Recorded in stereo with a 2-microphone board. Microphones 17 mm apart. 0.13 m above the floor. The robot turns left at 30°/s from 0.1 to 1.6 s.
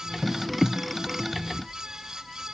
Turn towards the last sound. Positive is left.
No sound to turn to.